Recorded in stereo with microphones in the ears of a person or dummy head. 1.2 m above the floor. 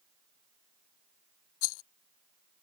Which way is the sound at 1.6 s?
65° left (ahead or behind).